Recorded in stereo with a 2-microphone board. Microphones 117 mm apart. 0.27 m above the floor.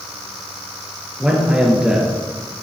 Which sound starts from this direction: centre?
A man speaking, at 1.2 s.